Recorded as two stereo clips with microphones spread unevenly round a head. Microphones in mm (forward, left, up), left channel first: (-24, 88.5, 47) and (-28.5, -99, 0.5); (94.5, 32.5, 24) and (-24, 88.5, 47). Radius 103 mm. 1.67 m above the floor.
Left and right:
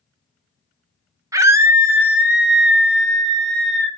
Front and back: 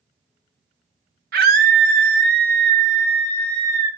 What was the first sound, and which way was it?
A scream, 165° right.